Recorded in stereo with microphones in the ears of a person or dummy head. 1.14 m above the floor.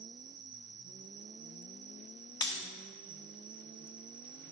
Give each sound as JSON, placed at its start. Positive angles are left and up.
{"t": 0.0, "sound": "an insect", "side_deg": -25, "distance_m": 1.0}
{"t": 2.4, "sound": "breaking glass", "side_deg": 25, "distance_m": 0.9}